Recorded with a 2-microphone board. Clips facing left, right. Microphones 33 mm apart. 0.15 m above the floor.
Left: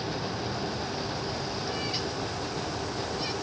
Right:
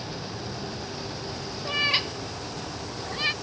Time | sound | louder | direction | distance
1.6 | a cat meowing | right 12 dB | 50° right (ahead or behind) | ?